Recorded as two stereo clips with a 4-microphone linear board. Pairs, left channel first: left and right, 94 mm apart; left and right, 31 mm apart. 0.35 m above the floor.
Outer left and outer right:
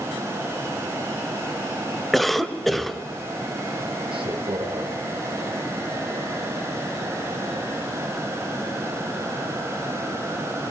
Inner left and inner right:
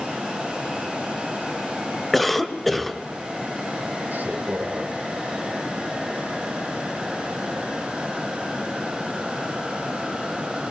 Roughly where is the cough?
Centre.